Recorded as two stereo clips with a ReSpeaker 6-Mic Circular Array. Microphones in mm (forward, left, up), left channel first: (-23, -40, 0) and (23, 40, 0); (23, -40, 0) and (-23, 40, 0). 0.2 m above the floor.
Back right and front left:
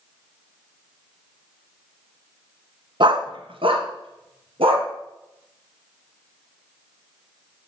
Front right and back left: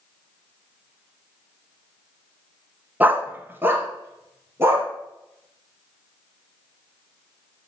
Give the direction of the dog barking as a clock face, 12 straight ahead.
10 o'clock.